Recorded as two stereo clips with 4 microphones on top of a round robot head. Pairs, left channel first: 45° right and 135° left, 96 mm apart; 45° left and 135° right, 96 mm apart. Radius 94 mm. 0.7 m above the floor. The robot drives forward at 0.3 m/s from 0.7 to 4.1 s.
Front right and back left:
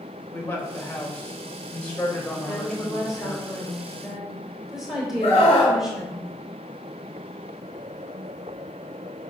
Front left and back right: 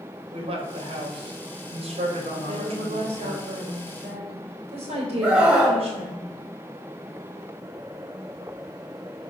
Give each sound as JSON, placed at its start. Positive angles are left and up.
{"t": 0.3, "sound": "a man speaking", "azimuth_deg": -110, "distance_m": 3.5}
{"t": 2.4, "sound": "a woman speaking", "azimuth_deg": -130, "distance_m": 3.5}
{"t": 5.2, "sound": "a scream", "azimuth_deg": -60, "distance_m": 5.0}